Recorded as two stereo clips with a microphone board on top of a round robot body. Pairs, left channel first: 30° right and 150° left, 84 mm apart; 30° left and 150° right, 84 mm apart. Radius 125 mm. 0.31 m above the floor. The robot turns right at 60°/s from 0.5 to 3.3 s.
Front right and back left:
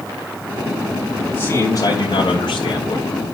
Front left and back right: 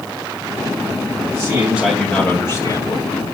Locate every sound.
1.2 s a man speaking: 100° right, 2.5 m; by 3.2 s 25° left, 2.5 m